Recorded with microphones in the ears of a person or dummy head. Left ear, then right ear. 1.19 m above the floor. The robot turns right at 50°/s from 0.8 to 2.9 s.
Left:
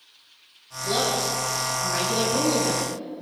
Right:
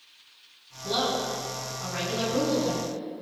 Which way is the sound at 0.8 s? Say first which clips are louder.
Left 3 dB; 10° left.